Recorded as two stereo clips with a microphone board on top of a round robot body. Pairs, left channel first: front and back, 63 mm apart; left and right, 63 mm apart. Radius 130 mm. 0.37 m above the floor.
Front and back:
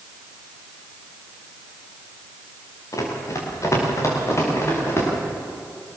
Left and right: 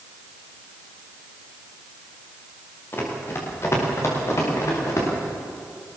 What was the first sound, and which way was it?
Running footsteps, 35° left.